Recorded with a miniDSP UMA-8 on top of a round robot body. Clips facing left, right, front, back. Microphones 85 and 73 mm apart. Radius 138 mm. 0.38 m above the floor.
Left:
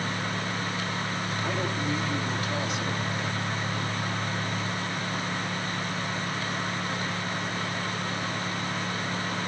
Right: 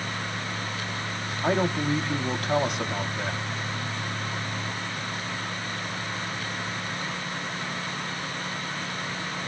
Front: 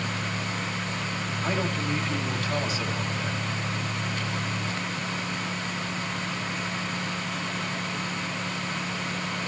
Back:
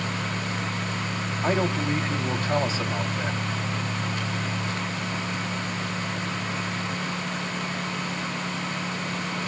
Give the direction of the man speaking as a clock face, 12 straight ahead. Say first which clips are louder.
Right 8 dB, back 5 dB; 4 o'clock.